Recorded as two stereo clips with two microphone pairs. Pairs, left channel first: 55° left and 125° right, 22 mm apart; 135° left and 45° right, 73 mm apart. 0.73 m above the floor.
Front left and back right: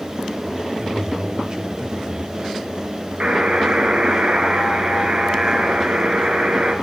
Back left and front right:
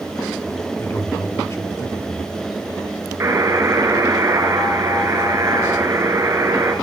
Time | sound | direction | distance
0.8 | a man speaking | straight behind | 3 m
3.2 | a buzzer | 95° right | 3 m